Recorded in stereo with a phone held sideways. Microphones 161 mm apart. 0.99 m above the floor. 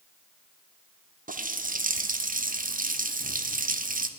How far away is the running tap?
About 0.5 m.